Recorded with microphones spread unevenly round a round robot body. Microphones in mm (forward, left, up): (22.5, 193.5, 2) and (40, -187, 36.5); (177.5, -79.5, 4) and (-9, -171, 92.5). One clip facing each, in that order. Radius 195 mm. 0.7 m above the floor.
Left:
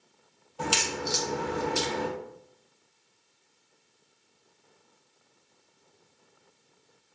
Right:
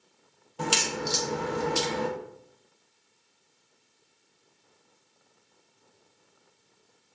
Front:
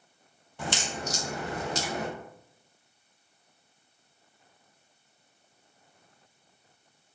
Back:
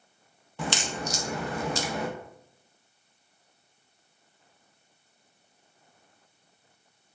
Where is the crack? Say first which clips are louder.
Right 1 dB, back 2 dB; 145° right, 0.5 m.